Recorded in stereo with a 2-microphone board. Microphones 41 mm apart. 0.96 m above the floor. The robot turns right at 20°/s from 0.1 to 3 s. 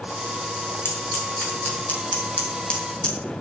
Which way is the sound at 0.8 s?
65° left (ahead or behind).